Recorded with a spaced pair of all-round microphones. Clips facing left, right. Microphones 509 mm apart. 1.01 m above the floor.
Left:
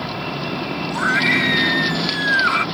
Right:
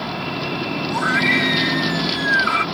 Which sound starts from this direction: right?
A scream, at 0.9 s.